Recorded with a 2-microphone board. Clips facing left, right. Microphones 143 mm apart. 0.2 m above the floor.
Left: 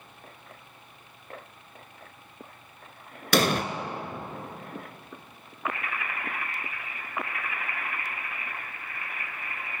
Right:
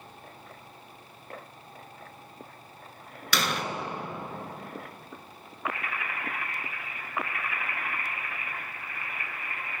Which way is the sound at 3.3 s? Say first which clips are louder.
Left 7 dB; 50° left (ahead or behind).